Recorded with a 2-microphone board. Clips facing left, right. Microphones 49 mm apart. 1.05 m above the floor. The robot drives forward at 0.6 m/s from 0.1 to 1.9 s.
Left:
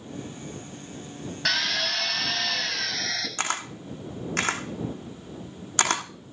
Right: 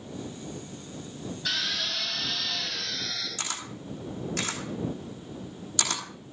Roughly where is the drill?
Left.